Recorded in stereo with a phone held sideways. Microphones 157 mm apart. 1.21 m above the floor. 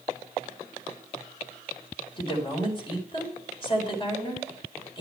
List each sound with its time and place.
2.2 s a woman speaking: 35° left (ahead or behind), 4 m